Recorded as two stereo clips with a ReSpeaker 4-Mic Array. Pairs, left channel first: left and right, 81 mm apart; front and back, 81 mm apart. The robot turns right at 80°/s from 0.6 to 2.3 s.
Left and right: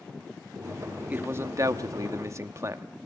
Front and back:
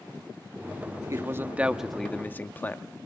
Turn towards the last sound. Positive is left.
turn(degrees=-55)